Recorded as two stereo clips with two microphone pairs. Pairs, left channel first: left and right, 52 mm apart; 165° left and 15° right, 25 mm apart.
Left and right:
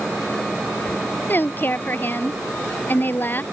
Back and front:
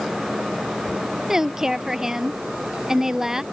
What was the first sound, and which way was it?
A woman speaking, 50° left.